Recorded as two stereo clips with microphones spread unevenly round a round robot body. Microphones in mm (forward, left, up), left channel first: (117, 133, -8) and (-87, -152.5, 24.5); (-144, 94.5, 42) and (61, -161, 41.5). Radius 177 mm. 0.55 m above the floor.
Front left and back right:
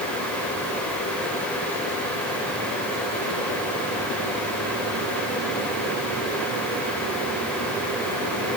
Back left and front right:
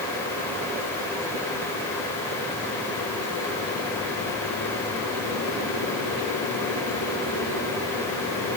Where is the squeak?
No squeak in this recording.